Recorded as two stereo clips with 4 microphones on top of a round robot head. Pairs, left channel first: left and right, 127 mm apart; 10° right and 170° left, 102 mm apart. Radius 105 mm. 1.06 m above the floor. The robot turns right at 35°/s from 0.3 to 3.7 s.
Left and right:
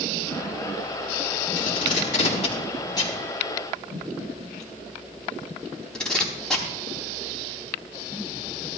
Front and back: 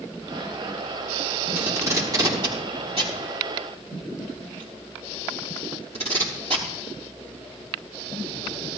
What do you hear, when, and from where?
1.6 s tape being pulled: 100° left, 4 m; by 6.7 s 175° left, 4 m